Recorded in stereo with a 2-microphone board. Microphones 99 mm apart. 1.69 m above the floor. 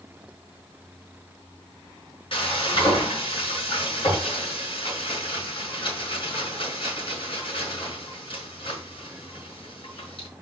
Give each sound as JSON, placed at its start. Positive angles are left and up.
{"t": 2.3, "sound": "frying", "side_deg": 60, "distance_m": 4.5}